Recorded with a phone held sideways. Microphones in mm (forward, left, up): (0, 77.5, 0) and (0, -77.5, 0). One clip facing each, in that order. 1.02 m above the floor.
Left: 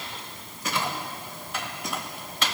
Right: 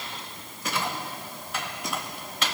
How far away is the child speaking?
No child speaking in this recording.